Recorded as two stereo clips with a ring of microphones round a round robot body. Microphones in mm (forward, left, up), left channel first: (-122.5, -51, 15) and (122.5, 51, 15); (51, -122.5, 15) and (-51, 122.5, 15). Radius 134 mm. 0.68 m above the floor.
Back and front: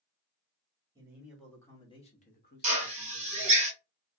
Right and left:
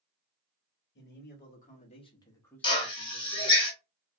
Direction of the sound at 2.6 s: 15° right.